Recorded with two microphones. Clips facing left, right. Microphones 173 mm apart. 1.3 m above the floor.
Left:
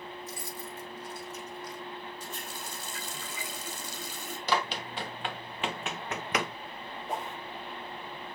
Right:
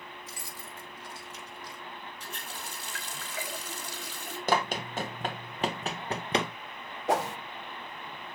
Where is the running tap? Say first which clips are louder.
Left 2 dB; 75° right (ahead or behind), 5 m.